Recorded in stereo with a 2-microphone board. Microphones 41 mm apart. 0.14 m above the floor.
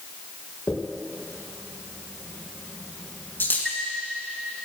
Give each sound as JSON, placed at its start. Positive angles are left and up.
{"t": 0.7, "sound": "a dropped coin", "side_deg": 60, "distance_m": 5.5}
{"t": 3.6, "sound": "a chime", "side_deg": 10, "distance_m": 3.0}